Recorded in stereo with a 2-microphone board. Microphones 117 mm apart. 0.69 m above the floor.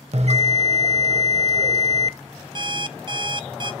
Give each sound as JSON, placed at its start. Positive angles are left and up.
{"t": 0.1, "sound": "a bell", "side_deg": -60, "distance_m": 0.7}
{"t": 2.5, "sound": "an alarm clock", "side_deg": -40, "distance_m": 0.5}